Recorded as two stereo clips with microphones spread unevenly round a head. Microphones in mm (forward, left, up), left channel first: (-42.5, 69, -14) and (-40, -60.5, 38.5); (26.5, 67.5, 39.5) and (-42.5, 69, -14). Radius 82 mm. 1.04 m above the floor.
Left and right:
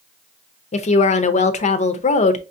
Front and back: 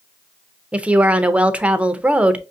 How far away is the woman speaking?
About 0.6 m.